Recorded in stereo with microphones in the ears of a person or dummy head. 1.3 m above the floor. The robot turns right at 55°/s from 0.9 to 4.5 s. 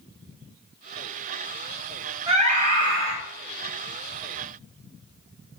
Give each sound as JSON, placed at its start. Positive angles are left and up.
{"t": 2.3, "sound": "a scream", "azimuth_deg": -155, "distance_m": 1.6}